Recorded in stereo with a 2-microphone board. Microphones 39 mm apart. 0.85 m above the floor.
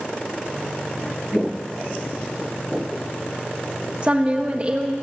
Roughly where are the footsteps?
Right.